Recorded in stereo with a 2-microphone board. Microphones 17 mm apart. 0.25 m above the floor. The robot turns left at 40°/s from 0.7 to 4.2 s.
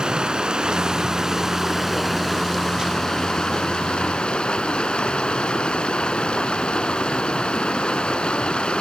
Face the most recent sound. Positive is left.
turn(degrees=95)